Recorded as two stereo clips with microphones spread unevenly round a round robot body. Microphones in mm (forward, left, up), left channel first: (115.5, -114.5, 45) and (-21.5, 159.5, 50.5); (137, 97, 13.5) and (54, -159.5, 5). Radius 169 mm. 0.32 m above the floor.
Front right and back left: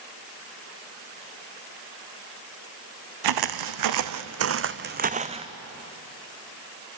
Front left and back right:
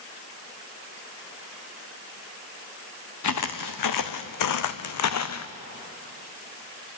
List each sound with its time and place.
3.2 s footsteps: 115° left, 1.3 m; by 5.5 s 40° left, 1.4 m